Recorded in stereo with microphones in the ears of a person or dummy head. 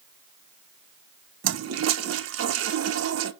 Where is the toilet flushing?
75° right (ahead or behind), 0.7 m.